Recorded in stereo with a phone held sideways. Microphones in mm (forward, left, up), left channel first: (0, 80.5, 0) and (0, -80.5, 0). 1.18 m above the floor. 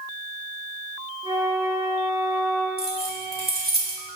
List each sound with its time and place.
1.2 s a flute: 30° right (ahead or behind), 1.9 m
2.8 s keys jangling: 80° right, 1.5 m